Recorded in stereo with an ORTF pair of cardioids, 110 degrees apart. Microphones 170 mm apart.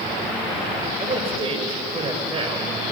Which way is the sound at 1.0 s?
35° right.